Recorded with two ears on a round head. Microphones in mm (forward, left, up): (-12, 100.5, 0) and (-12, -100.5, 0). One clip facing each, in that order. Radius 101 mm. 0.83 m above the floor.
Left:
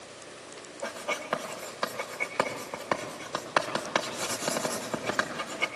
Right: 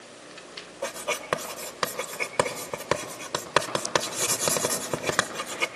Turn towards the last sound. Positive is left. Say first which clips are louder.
# right 3 dB
turn(degrees=-60)  # may be behind; listen again after turning